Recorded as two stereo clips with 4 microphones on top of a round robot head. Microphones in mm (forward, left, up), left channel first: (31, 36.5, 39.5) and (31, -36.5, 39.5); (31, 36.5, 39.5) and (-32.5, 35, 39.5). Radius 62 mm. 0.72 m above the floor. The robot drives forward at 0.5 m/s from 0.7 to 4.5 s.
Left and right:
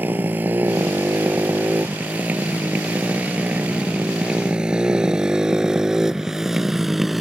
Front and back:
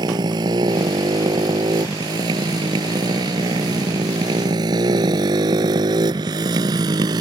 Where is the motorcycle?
160° right; by 7.2 s straight behind.